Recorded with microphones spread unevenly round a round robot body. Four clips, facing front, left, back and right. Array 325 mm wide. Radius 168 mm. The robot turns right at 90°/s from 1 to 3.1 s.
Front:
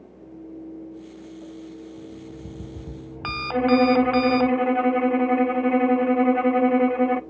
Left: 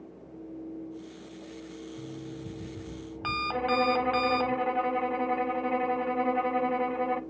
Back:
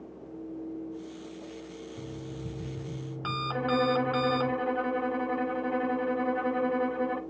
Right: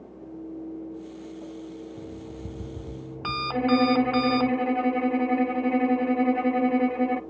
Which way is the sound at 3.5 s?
10° right.